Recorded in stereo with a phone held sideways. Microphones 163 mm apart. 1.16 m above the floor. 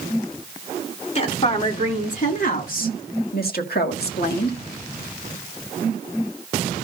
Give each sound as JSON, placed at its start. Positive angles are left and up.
{"t": 1.1, "sound": "a woman speaking", "side_deg": 45, "distance_m": 3.5}